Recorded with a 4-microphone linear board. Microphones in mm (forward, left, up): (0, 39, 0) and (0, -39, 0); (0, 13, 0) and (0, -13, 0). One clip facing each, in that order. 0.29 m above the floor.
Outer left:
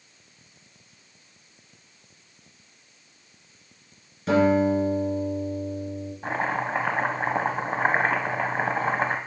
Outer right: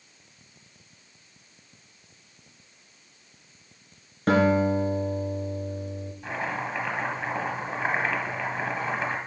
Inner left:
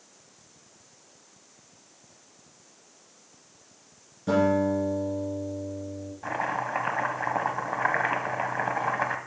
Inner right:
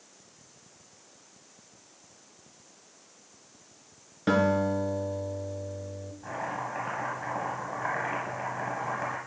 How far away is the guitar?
About 2.5 m.